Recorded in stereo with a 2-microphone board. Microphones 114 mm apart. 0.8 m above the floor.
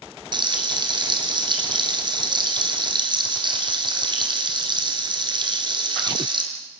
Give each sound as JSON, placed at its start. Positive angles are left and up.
{"t": 0.3, "sound": "frying", "side_deg": -45, "distance_m": 3.5}